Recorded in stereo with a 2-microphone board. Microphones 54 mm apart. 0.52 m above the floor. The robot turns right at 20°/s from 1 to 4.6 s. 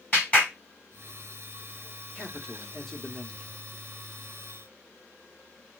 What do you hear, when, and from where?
0.1 s a clap: 25° left (ahead or behind), 4 m
2.1 s a man speaking: 15° left (ahead or behind), 1.0 m; by 3.6 s 5° right (ahead or behind), 1.0 m